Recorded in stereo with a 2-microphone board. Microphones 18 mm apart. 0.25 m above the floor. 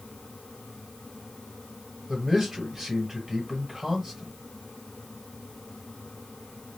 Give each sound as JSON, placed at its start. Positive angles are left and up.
{"t": 2.1, "sound": "a man speaking", "side_deg": -20, "distance_m": 1.5}